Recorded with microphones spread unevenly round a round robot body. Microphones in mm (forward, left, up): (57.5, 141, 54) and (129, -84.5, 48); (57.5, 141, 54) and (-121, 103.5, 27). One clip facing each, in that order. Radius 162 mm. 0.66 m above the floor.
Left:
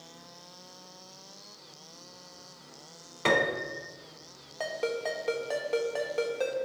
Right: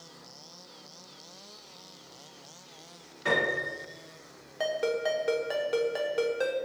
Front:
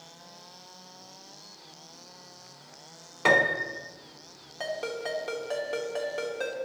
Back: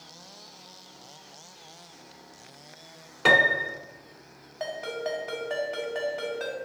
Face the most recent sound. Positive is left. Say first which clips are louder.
# right 3 dB, back 1 dB
turn(degrees=5)